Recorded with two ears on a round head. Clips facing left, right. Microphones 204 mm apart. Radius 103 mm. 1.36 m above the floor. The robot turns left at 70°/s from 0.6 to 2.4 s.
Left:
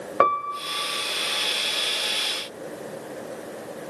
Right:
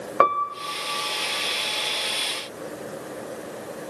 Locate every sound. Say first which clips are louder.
0.2 s a piano: even; centre (ahead or behind), 0.5 m